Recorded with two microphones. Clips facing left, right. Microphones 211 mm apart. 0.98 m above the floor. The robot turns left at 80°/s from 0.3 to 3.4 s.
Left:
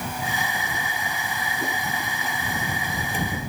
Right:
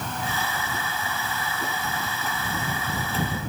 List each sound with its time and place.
Only background noise.